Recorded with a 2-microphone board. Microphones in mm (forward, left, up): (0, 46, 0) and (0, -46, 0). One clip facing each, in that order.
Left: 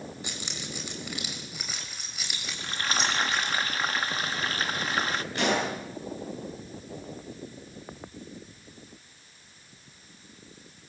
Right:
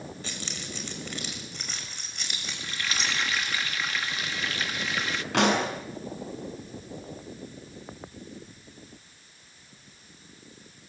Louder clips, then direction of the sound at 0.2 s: Even; 15° left (ahead or behind).